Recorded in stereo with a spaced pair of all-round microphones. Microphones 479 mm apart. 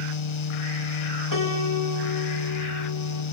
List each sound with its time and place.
0.0 s a fan: 75° left (ahead or behind), 0.7 m
1.3 s a piano: 40° left (ahead or behind), 3 m